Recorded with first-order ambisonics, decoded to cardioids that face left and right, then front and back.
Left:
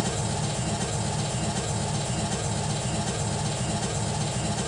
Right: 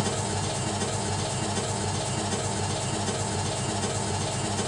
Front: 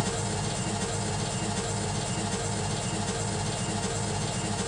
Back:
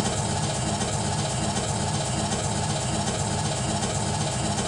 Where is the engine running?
175° right, 1.1 m.